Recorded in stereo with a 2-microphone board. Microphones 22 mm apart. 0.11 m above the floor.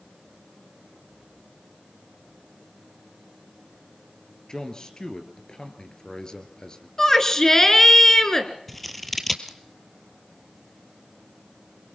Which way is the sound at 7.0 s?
20° left (ahead or behind).